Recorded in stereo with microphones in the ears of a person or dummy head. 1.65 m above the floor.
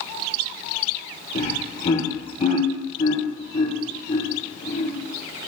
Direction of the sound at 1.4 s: 45° left (ahead or behind).